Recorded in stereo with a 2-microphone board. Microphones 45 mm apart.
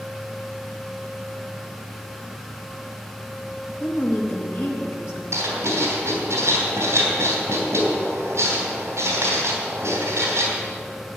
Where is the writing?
65° right (ahead or behind), 3 m.